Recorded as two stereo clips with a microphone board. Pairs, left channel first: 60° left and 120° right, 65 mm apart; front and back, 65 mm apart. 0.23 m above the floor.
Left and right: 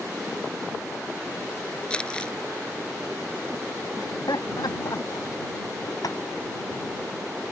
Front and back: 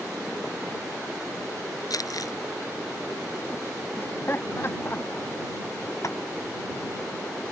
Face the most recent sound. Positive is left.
turn(degrees=35)